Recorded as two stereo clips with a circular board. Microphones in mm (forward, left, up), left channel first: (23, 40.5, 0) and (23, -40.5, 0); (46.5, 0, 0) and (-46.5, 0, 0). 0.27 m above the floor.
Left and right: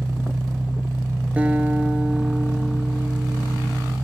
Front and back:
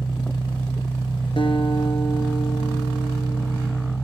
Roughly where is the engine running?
Ahead right.